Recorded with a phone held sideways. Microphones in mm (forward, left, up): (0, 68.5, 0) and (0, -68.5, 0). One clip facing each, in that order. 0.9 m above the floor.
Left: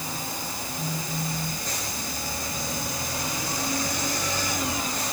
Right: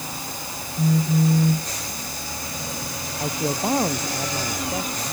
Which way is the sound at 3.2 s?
70° right (ahead or behind).